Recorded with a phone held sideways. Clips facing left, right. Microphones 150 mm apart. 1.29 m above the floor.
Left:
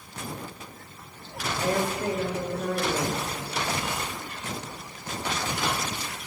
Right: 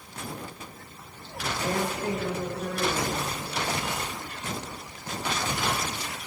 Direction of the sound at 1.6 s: 70° left (ahead or behind).